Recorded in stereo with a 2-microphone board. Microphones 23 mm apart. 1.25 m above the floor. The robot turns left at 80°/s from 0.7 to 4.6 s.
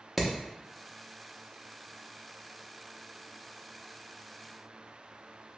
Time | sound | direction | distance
0.2 | hammering | centre (ahead or behind) | 0.7 m